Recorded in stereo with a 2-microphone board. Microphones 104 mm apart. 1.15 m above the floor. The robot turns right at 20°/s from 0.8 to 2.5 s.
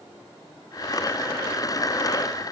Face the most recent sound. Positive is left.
No sound to turn to.